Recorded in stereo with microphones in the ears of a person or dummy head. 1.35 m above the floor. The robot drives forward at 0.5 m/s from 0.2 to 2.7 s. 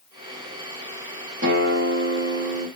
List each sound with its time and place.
1.4 s a guitar: 50° right (ahead or behind), 1.2 m; by 2.7 s 60° right (ahead or behind), 1.1 m